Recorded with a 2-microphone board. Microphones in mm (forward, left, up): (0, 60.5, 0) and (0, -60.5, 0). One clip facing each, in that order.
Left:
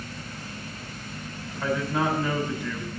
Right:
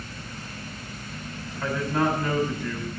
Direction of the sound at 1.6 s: 5° left (ahead or behind).